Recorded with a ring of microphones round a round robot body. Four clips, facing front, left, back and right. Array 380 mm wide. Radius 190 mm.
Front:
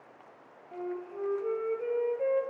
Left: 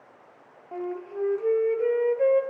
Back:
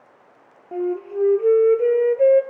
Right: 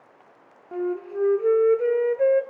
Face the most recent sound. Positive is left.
turn(degrees=-155)